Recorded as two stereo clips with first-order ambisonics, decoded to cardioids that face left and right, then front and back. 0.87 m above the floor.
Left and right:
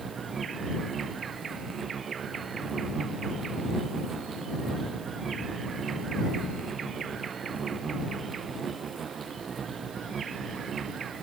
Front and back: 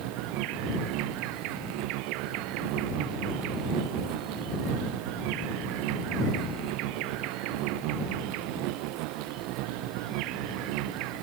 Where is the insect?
155° right.